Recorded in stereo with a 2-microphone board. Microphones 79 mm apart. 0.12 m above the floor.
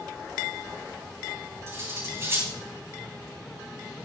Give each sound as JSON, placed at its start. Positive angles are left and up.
{"t": 1.7, "sound": "cutlery clinking", "side_deg": -35, "distance_m": 6.0}